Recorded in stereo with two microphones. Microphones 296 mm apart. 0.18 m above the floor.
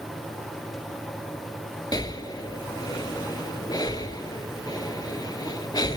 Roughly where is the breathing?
Centre.